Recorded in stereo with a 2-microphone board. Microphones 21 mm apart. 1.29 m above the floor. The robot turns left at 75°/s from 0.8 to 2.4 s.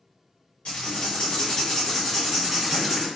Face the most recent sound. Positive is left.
turn(degrees=-20)